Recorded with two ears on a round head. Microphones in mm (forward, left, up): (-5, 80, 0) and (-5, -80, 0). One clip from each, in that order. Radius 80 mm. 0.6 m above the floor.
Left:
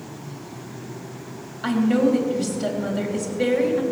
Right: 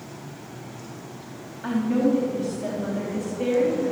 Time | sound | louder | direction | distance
1.6 | a woman speaking | left 3 dB | 75° left (ahead or behind) | 3.5 m